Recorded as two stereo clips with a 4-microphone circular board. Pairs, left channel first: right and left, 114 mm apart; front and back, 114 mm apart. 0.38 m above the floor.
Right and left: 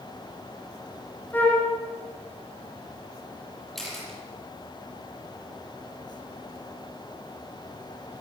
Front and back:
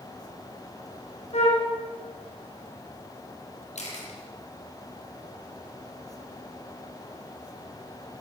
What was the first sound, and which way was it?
A flute, 15° right.